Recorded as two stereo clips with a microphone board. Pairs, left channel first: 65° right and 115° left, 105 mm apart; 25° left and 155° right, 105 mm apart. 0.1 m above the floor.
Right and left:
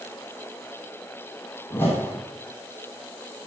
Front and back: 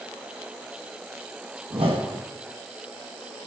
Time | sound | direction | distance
1.7 | a whoosh | 135° right | 2.5 m